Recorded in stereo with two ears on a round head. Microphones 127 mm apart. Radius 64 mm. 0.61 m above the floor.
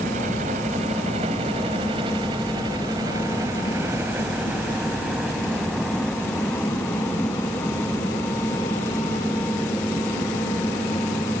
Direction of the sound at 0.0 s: 55° right (ahead or behind).